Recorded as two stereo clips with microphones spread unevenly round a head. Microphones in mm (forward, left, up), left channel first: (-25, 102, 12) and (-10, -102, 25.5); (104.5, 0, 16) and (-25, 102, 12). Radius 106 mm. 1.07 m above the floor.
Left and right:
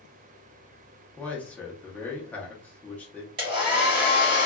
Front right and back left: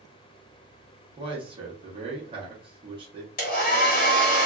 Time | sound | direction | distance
1.2 | a man speaking | 165° left | 0.8 m
3.4 | a hair dryer | 25° right | 1.2 m